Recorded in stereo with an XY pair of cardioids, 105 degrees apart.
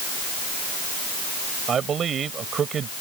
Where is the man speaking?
55° right.